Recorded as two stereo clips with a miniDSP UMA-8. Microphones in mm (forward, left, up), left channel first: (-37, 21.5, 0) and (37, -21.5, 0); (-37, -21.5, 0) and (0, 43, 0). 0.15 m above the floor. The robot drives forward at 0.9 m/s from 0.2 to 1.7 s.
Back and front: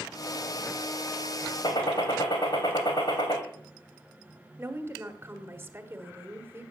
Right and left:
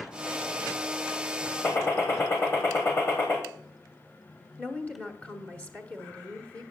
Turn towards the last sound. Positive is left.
turn(degrees=-70)